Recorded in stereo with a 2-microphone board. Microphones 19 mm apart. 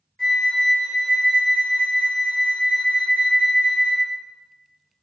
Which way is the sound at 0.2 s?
45° left (ahead or behind).